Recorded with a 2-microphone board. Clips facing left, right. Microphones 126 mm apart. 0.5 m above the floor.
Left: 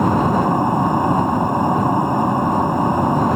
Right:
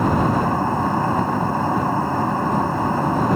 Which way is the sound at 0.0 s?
15° left (ahead or behind).